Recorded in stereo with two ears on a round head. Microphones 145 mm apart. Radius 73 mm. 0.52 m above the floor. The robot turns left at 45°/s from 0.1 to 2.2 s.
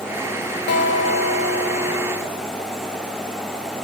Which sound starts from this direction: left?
A guitar, at 0.7 s.